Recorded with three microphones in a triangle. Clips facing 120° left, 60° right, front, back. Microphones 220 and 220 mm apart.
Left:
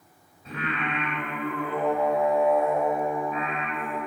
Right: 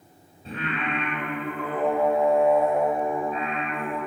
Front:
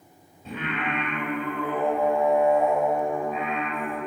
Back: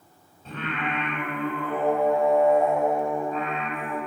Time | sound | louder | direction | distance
0.5 | singing | right 1 dB, front 1 dB | 65° right | 1.5 m